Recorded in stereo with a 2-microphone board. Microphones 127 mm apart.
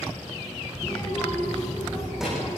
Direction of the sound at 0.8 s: 10° left (ahead or behind).